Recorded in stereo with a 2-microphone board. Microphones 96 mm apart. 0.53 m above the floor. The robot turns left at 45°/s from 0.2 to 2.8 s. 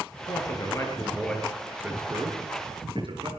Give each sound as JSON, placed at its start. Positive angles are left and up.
{"t": 0.3, "sound": "a man speaking", "side_deg": 55, "distance_m": 6.5}